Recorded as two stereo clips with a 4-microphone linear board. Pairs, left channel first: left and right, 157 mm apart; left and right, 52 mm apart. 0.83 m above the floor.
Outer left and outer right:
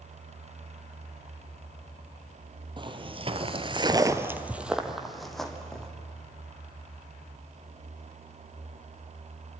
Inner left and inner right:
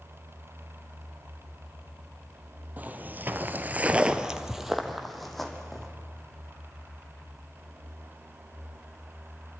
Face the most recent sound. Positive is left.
turn(degrees=5)  # may be behind; listen again after turning